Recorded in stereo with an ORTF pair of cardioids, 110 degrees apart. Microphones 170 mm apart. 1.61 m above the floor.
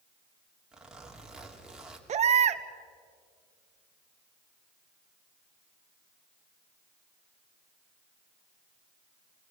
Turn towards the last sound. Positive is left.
turn(degrees=-45)